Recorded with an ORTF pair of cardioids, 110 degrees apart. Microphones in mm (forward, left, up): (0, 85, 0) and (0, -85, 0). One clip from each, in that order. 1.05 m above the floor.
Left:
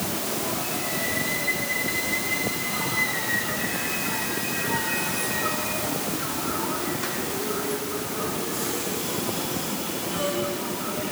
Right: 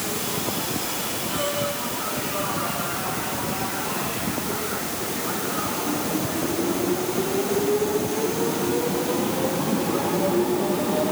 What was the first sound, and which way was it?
Only background noise.